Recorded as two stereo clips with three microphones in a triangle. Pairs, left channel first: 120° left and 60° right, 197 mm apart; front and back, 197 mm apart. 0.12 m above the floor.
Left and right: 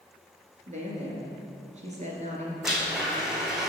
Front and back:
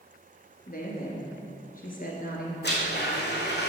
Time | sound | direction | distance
0.7 | a woman speaking | 20° right | 1.9 m
2.6 | a blender | 25° left | 1.7 m